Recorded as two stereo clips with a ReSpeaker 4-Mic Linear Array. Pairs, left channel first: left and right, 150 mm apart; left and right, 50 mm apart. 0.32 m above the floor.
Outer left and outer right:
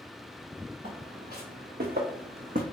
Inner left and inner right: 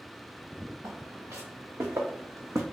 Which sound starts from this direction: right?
Footsteps, at 0.8 s.